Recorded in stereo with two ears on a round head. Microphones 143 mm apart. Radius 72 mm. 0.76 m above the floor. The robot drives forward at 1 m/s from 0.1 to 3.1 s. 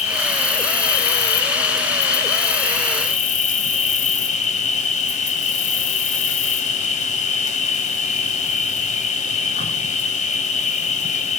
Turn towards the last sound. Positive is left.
turn(degrees=50)  # may be behind; listen again after turning